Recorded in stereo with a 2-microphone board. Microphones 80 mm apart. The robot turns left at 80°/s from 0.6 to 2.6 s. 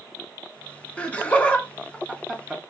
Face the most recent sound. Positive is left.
turn(degrees=-5)  # may be behind; listen again after turning